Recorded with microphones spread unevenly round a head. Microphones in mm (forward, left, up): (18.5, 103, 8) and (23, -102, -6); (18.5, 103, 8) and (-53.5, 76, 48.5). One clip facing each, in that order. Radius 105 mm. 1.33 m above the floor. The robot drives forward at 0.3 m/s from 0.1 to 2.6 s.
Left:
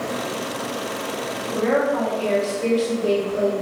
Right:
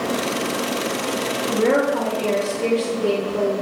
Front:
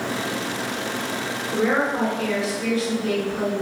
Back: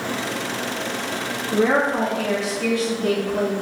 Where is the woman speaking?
150° right, 0.8 m; by 3.5 s 155° right, 1.1 m.